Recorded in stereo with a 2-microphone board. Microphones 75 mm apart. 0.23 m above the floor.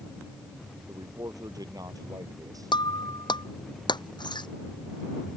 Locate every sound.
0.9 s a man speaking: 55° right (ahead or behind)
2.7 s breaking glass: 75° left (ahead or behind)